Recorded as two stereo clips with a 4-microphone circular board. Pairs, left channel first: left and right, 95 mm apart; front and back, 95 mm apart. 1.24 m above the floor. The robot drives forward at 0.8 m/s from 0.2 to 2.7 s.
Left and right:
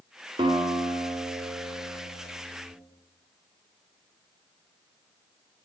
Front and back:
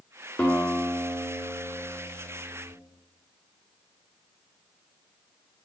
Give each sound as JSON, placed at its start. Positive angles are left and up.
{"t": 0.4, "sound": "a guitar", "azimuth_deg": -75, "distance_m": 1.8}